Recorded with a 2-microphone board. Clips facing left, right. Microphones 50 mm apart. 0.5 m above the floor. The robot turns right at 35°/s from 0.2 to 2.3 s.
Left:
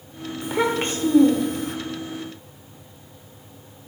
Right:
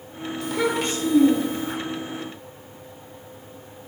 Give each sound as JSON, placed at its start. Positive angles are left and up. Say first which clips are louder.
{"t": 0.4, "sound": "a child speaking", "louder": "left 1 dB", "azimuth_deg": 25, "distance_m": 0.7}